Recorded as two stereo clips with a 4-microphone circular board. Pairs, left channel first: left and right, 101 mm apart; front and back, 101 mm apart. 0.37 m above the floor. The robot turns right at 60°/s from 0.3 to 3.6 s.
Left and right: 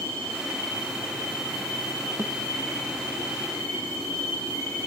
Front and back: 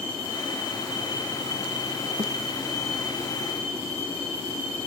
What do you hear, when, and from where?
2.2 s a thud: 155° right; by 2.3 s 145° right